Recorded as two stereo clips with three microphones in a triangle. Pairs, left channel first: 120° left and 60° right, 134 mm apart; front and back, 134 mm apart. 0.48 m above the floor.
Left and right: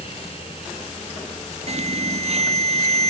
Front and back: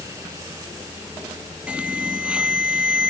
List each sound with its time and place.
1.7 s an alarm: 100° right